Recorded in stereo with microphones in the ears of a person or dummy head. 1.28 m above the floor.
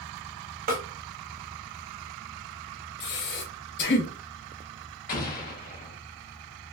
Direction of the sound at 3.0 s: 55° left (ahead or behind).